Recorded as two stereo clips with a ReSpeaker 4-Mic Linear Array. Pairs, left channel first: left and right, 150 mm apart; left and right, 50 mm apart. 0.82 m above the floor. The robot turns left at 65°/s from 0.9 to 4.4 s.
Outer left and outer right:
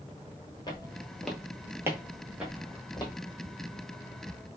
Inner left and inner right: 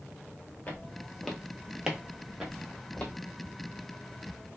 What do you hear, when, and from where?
0.7 s footsteps: 30° left (ahead or behind), 0.9 m